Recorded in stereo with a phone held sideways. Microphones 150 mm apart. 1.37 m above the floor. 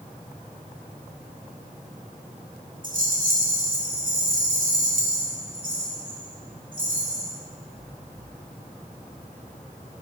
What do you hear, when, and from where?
2.8 s a rattle: 60° right (ahead or behind), 1.3 m